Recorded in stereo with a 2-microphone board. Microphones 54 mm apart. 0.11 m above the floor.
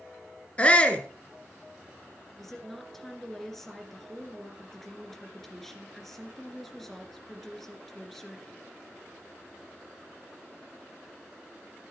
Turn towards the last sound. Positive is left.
turn(degrees=5)  # may be behind; listen again after turning